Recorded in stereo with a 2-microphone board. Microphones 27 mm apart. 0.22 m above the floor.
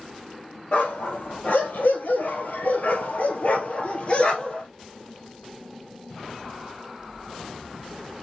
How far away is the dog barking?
About 3 m.